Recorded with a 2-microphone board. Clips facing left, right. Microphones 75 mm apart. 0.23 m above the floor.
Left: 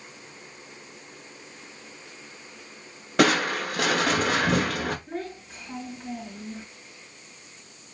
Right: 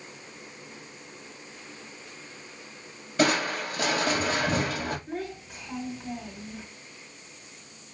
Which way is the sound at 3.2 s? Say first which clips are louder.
Left 3 dB; 75° left (ahead or behind).